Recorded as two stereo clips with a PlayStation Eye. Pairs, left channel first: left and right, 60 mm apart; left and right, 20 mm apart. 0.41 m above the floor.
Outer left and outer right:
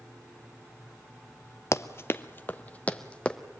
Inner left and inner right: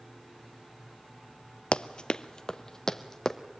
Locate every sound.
1.7 s running footsteps: 55° left (ahead or behind), 0.6 m; by 3.4 s 20° left (ahead or behind), 1.4 m